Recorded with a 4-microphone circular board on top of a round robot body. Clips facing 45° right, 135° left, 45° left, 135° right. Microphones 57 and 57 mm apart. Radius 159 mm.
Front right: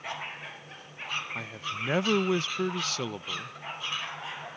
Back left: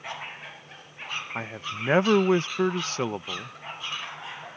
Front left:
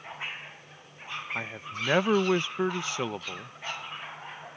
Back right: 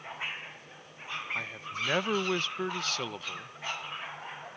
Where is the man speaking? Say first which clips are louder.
Back left 2 dB, front left 1 dB; 105° left.